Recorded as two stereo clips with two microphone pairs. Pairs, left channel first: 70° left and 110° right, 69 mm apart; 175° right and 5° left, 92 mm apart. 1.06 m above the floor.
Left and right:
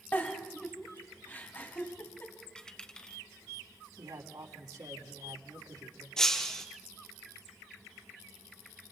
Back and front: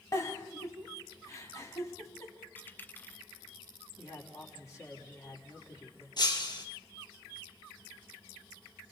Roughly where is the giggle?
Behind left.